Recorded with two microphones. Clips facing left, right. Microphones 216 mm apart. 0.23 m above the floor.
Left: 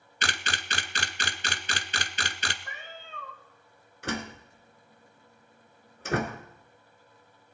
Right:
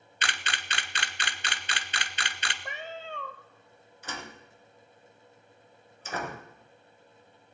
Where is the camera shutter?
40° left (ahead or behind), 0.7 m.